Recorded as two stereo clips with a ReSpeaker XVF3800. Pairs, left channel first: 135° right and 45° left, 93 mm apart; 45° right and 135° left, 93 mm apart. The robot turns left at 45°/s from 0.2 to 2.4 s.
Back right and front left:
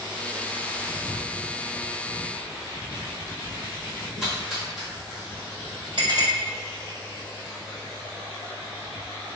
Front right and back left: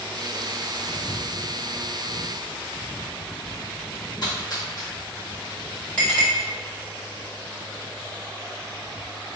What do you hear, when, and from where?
4.2 s a splash: 40° right, 1.2 m
6.0 s a clink: 30° left, 1.8 m